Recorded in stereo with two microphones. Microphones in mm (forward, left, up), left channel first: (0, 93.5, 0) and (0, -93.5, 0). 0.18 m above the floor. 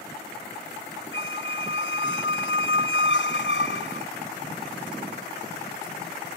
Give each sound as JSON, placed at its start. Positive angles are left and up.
{"t": 1.1, "sound": "a squeak", "side_deg": 80}